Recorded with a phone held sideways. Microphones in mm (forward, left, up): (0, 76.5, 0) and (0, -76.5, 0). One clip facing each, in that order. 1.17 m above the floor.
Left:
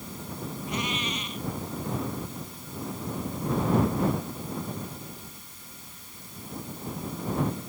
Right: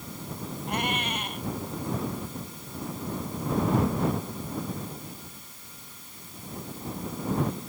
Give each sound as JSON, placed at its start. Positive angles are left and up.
{"t": 0.7, "sound": "a cat meowing", "side_deg": -60}